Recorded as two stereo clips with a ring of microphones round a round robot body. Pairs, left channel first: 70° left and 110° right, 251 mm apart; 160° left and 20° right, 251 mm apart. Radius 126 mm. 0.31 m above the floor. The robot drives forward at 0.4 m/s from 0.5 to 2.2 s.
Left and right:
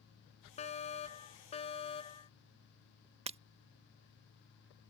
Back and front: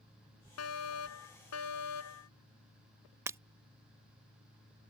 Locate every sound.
0.6 s a fire alarm: 130° left; by 2.3 s 135° left
3.3 s breaking glass: 90° right